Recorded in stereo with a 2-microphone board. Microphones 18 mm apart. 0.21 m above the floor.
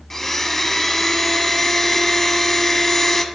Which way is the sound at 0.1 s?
20° left (ahead or behind).